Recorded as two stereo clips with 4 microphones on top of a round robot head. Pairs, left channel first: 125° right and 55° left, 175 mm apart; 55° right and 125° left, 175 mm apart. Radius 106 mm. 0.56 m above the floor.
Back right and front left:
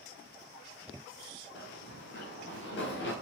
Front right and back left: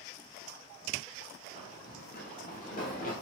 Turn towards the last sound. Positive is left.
turn(degrees=-100)